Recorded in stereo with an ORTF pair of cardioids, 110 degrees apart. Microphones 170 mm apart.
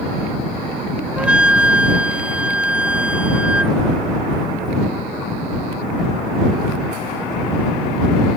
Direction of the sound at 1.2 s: 5° right.